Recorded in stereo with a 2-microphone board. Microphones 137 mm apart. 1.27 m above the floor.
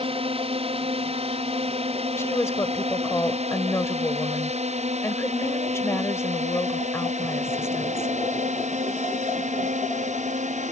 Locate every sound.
0.0 s a drone: 45° right (ahead or behind); by 10.7 s 65° right (ahead or behind)
2.2 s a woman speaking: 20° left (ahead or behind)